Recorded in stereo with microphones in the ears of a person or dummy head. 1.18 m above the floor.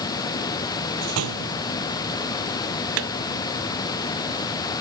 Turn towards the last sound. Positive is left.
turn(degrees=-75)  # may be behind; listen again after turning